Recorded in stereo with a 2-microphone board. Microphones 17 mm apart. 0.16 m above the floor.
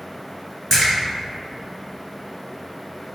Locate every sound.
0.7 s a splash: 10° left (ahead or behind), 2.0 m